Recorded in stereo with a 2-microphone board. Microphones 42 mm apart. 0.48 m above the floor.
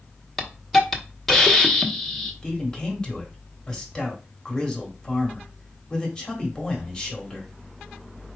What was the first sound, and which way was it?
A hiss, 5° left (ahead or behind).